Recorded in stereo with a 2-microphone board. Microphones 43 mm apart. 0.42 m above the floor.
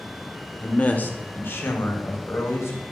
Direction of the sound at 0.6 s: 30° left (ahead or behind).